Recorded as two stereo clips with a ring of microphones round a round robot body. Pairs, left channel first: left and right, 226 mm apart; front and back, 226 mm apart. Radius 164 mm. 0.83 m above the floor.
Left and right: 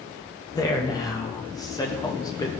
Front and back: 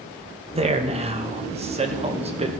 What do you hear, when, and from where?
0.6 s a man speaking: 150° left, 0.7 m